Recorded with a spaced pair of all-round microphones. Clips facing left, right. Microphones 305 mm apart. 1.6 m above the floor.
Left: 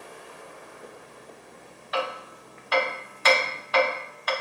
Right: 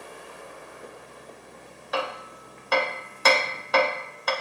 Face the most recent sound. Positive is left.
turn(degrees=-55)  # may be behind; listen again after turning